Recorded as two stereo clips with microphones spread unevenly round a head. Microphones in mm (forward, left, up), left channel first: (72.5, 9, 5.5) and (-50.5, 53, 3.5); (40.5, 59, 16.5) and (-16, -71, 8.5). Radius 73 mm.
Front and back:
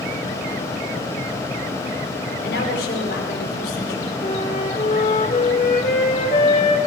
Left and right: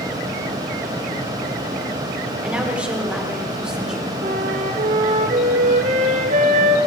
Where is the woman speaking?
30° right, 5 m; by 4.1 s 25° right, 4.5 m.